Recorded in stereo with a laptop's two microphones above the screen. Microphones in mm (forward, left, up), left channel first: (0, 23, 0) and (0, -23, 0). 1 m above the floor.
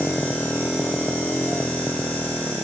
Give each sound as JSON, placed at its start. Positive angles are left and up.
{"t": 0.0, "sound": "a motorcycle", "side_deg": 40}